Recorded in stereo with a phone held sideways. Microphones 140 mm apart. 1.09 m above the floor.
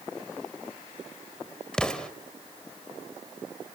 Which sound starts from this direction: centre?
An explosion, at 1.7 s.